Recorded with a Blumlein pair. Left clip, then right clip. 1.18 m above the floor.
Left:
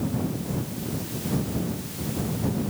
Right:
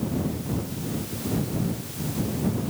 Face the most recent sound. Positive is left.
No sound to turn to.